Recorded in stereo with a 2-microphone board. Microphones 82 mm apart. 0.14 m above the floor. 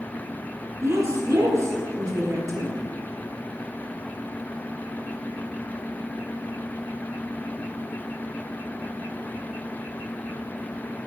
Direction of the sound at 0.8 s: 40° right (ahead or behind).